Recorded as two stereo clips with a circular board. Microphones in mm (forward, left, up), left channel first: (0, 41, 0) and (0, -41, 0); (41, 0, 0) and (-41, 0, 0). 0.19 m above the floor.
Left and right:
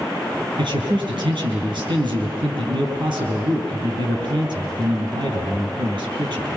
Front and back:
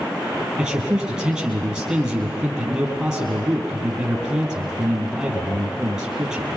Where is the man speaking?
95° right, 5.5 m.